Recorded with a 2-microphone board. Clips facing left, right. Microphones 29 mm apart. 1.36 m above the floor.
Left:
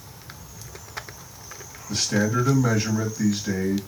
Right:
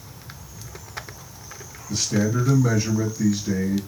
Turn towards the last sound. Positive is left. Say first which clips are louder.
# even
turn(degrees=70)  # may be behind; listen again after turning